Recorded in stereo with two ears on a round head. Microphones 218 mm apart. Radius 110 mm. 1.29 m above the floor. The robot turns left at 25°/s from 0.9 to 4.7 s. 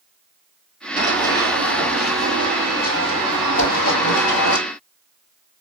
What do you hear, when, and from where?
1.0 s running footsteps: 20° right (ahead or behind), 1.3 m; by 4.6 s 55° left (ahead or behind), 2.5 m
3.6 s a whoosh: 55° left (ahead or behind), 1.6 m